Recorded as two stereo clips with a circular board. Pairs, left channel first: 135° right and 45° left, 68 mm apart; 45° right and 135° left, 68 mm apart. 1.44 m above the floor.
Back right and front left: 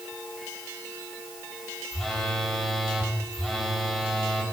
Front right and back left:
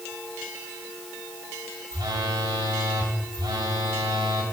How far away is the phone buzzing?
About 2 m.